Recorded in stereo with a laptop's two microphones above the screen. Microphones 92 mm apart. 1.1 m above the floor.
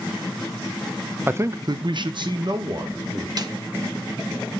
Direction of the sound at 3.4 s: 50° right (ahead or behind).